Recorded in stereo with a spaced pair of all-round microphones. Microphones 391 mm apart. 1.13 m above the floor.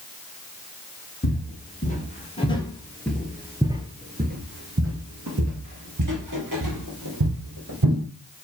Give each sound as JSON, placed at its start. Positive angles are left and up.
{"t": 1.2, "sound": "footsteps", "side_deg": 25, "distance_m": 2.0}